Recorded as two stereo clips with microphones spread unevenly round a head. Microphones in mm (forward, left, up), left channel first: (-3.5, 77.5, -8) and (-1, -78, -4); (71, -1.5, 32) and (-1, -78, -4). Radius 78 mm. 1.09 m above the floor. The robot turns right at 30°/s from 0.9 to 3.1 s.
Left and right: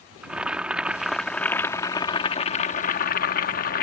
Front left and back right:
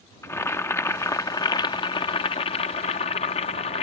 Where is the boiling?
5° right; by 3.8 s 60° left.